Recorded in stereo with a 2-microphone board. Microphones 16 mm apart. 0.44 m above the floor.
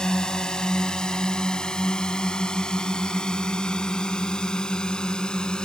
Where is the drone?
45° left (ahead or behind); by 5.7 s 50° left (ahead or behind).